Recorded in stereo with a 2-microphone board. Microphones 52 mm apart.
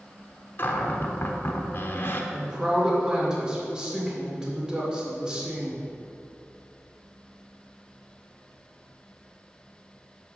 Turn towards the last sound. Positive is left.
turn(degrees=-15)  # may be behind; listen again after turning